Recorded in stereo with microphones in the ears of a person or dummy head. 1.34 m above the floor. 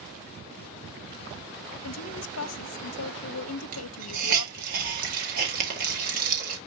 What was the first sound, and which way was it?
A woman speaking, 80° left.